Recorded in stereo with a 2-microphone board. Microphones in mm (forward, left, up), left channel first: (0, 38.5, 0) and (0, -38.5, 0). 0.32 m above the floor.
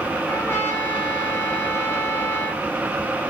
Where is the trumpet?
35° left (ahead or behind), 1.1 m.